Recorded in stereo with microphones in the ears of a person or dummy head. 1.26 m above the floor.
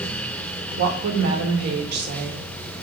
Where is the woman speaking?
55° right (ahead or behind), 1.0 m.